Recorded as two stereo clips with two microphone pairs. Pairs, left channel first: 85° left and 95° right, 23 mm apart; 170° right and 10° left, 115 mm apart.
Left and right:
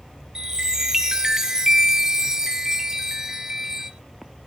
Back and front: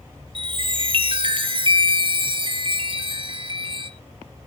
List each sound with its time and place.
0.3 s a chime: 25° right, 1.5 m